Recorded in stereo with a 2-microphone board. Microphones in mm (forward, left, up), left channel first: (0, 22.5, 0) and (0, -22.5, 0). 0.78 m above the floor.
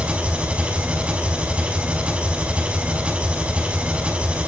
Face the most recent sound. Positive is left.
turn(degrees=-30)  # may be behind; listen again after turning